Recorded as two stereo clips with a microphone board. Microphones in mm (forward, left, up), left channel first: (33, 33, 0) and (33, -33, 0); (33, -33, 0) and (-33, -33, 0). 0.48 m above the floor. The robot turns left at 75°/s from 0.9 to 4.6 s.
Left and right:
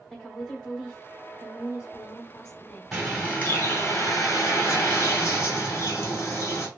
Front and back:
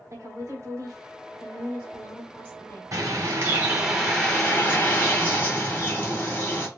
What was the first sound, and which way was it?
A woman speaking, 165° left.